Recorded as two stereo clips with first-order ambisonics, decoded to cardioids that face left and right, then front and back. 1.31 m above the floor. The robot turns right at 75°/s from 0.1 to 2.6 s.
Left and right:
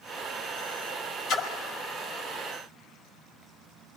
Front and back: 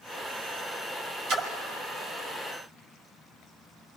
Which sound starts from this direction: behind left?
A splash, at 1.3 s.